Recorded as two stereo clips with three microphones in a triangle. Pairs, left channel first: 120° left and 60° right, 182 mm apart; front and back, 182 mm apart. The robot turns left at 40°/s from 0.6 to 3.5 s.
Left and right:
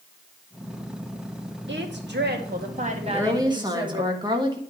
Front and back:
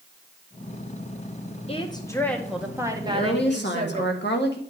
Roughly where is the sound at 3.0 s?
Ahead left.